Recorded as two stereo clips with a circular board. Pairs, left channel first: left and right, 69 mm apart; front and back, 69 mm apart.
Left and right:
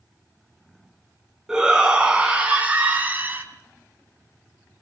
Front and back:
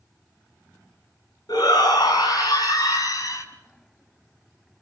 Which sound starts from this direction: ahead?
A shout, at 1.5 s.